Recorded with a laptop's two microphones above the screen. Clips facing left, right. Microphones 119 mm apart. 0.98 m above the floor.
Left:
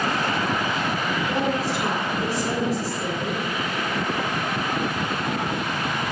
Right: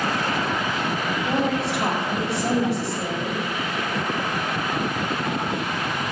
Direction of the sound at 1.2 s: 85° right.